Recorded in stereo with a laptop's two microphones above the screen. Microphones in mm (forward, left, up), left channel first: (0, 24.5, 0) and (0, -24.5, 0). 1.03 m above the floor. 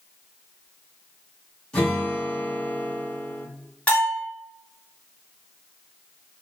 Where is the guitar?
20° left (ahead or behind), 1.1 m.